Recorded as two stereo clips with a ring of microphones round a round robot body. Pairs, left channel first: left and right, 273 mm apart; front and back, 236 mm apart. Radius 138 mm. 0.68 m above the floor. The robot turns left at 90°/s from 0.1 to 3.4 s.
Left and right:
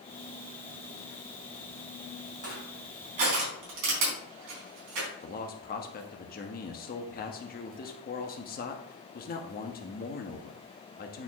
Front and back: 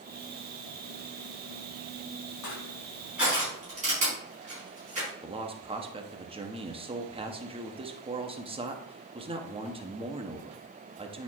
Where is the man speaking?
125° left, 1.1 m.